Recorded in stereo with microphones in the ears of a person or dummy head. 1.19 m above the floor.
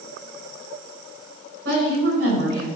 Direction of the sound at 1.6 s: 75° right (ahead or behind).